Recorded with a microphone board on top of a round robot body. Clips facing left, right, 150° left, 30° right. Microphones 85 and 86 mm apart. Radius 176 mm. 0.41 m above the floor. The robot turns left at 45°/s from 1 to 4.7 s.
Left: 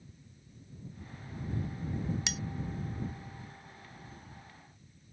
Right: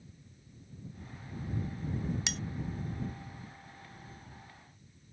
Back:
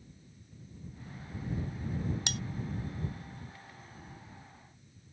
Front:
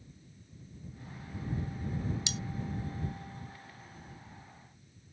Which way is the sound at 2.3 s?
Straight behind.